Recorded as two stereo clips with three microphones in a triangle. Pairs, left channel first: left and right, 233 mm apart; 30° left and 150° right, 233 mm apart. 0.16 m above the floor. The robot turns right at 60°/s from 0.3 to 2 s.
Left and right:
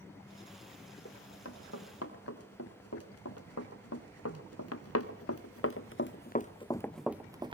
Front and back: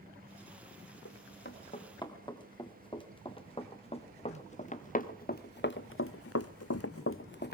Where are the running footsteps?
45° left, 4 m; by 7.5 s 20° right, 1.0 m.